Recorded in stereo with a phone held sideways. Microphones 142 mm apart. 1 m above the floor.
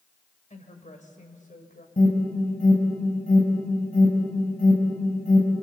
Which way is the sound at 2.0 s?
70° left (ahead or behind).